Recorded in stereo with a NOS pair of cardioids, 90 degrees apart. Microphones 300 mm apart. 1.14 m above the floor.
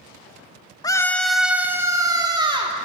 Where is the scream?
15° left, 1.2 m; by 2.8 s 15° right, 3 m.